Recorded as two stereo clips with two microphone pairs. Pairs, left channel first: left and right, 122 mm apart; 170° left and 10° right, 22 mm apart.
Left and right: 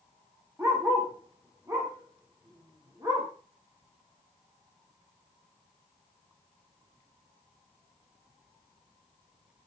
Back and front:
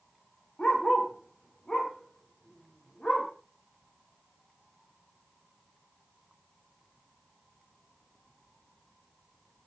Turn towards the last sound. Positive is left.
turn(degrees=-150)